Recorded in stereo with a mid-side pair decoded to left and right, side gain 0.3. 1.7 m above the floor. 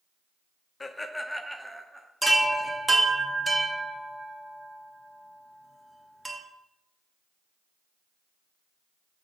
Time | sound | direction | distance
0.8 | laughter | 40° left | 0.9 m
2.2 | a chime | 20° right | 1.5 m